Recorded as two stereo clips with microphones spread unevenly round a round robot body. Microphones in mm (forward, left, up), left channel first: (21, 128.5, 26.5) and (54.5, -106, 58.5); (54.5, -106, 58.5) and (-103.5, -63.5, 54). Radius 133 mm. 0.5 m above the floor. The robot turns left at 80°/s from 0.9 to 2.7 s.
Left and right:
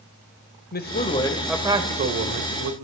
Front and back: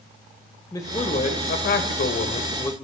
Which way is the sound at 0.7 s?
55° left.